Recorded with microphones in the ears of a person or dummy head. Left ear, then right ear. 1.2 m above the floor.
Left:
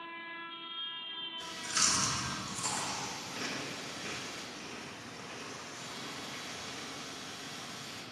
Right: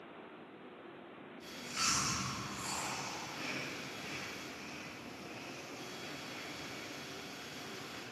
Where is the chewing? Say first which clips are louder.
Left 4 dB; 60° left (ahead or behind), 1.6 m.